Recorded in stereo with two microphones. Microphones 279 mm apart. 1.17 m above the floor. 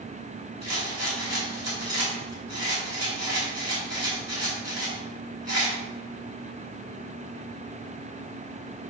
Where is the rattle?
80° right, 4.5 m.